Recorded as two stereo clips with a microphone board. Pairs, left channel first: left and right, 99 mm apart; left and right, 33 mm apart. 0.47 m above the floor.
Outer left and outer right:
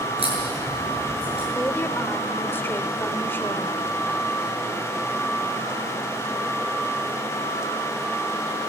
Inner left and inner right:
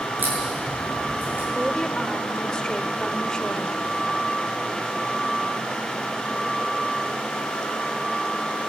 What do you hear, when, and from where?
0.2 s a crack: 70° right (ahead or behind), 7.5 m
1.6 s a woman speaking: 20° left (ahead or behind), 1.3 m